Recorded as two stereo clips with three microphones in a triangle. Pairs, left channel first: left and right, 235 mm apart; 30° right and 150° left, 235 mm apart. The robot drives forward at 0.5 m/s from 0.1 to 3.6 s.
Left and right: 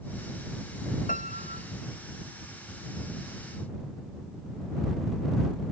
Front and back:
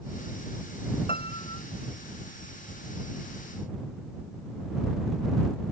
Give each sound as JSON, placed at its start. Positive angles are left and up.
{"t": 1.1, "sound": "a piano", "azimuth_deg": 35}